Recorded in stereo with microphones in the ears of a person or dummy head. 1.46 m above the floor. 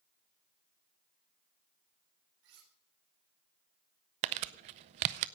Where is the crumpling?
45° right (ahead or behind), 0.5 m.